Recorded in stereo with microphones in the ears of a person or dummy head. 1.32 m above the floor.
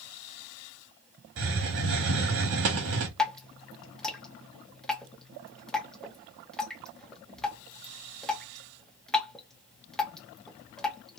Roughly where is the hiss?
Right.